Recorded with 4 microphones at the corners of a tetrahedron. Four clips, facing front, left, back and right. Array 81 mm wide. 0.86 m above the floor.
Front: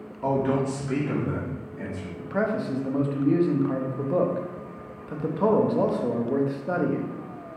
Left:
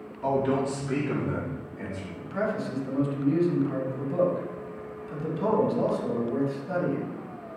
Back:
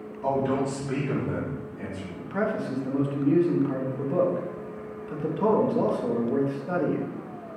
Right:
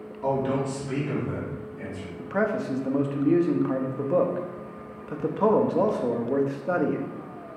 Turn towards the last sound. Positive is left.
turn(degrees=-65)